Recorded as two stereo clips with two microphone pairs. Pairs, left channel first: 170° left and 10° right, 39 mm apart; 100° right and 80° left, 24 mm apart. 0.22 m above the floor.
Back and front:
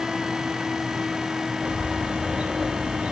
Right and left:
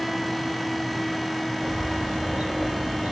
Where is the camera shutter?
No camera shutter in this recording.